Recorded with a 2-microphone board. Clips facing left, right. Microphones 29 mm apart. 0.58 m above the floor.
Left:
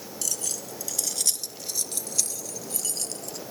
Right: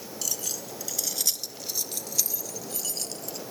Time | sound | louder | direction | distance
0.2 | keys jangling | left 1 dB | 10° right (ahead or behind) | ?